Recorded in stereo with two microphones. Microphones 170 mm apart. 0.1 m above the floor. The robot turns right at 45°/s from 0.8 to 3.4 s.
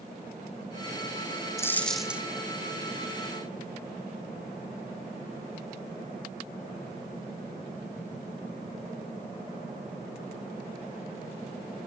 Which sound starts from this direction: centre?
A dropped coin, at 1.6 s.